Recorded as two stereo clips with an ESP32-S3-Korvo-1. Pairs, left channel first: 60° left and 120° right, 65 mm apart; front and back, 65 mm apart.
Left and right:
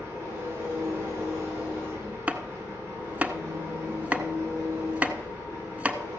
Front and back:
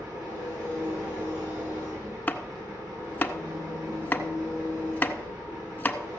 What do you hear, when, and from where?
0.0 s an engine running: 170° right, 8 m
2.3 s chopping: 55° right, 0.8 m